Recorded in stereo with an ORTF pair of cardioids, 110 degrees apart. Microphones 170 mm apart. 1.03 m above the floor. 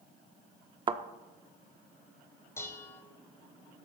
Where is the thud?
30° right, 1.0 m.